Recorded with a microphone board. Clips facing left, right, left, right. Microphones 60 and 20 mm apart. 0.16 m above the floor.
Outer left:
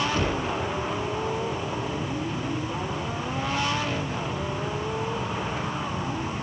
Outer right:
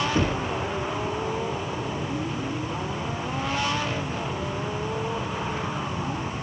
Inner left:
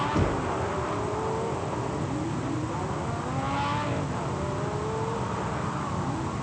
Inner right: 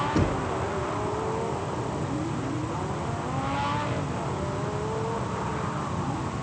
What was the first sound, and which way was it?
Knocking, 25° right (ahead or behind).